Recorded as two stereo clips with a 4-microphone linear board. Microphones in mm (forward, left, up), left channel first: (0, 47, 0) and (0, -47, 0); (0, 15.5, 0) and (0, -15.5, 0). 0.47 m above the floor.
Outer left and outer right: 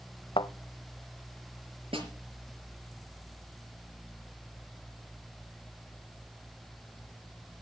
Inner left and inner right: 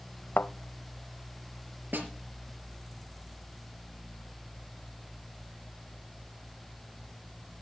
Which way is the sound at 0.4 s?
70° left (ahead or behind).